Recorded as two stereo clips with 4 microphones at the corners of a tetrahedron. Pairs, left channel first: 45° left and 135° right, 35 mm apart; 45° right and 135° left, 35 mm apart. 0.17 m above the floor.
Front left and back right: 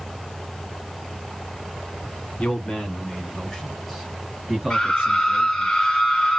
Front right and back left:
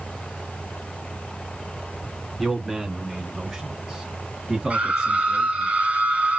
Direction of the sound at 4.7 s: 115° left.